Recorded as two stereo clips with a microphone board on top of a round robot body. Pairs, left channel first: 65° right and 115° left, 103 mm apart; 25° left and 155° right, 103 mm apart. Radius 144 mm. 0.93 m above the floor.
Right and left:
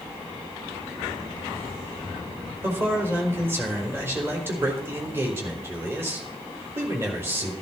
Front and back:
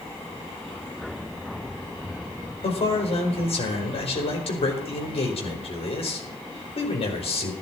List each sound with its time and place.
2.6 s a man speaking: 45° left, 4.5 m